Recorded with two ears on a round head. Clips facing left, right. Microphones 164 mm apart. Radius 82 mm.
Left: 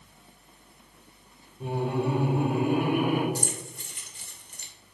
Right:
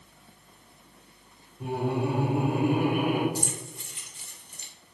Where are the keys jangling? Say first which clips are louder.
Even; 40° left (ahead or behind), 0.9 m.